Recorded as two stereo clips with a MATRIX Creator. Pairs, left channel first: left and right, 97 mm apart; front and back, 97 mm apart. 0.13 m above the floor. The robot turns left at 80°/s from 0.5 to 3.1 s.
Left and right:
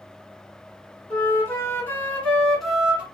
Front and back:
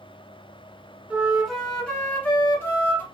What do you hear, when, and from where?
1.1 s a flute: 125° left, 1.0 m; by 3.0 s 30° right, 1.0 m